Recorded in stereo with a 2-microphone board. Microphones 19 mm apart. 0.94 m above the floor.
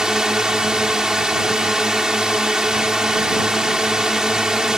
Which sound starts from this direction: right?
A drone, at 0.0 s.